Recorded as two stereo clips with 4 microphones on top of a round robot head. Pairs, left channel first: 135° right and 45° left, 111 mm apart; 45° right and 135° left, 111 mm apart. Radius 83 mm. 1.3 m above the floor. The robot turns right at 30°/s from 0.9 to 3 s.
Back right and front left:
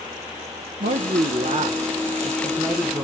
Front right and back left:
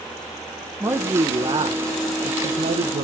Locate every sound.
0.8 s a man speaking: 60° left, 0.9 m; by 3.0 s 125° left, 0.9 m